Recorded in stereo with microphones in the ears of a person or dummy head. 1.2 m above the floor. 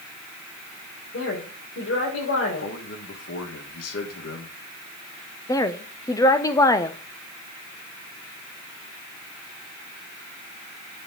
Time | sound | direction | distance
1.1 | a woman speaking | 80° left | 4 m
2.6 | a man speaking | 75° left (ahead or behind) | 2.5 m
5.5 | a woman speaking | 15° left (ahead or behind) | 1.0 m